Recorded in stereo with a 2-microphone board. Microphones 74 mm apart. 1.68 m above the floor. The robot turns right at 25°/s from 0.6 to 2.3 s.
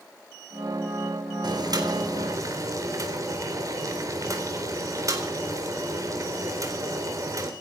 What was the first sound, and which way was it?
Boiling, 70° right (ahead or behind).